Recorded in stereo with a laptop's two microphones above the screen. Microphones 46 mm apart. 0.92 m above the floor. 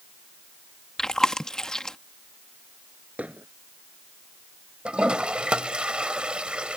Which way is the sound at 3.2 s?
30° right (ahead or behind).